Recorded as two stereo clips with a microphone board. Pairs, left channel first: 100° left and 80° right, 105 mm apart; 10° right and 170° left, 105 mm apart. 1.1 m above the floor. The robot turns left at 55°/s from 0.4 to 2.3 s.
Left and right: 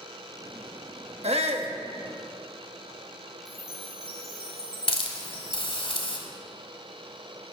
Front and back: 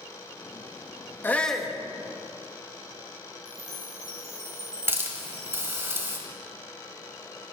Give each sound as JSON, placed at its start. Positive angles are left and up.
{"t": 1.2, "sound": "a shout", "azimuth_deg": -80, "distance_m": 1.2}
{"t": 3.5, "sound": "a chime", "azimuth_deg": 120, "distance_m": 2.5}
{"t": 4.9, "sound": "a hiss", "azimuth_deg": 110, "distance_m": 1.5}